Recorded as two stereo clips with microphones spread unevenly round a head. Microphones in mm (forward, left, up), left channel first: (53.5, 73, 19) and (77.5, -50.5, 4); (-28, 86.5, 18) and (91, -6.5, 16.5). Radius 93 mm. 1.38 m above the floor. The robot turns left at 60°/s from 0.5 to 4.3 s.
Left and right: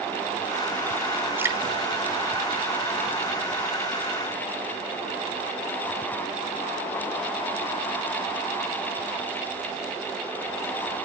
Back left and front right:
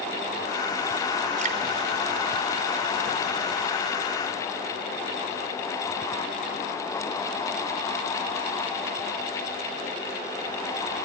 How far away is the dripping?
About 4 m.